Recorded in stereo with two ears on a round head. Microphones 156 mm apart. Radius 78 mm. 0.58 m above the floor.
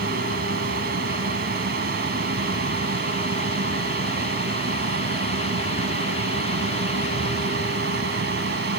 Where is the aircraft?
55° right (ahead or behind); by 8.8 s 60° right (ahead or behind).